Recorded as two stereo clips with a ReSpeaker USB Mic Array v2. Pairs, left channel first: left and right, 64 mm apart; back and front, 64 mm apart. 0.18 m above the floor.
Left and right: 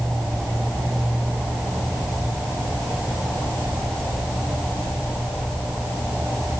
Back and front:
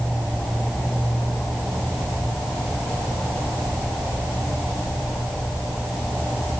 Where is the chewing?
No chewing in this recording.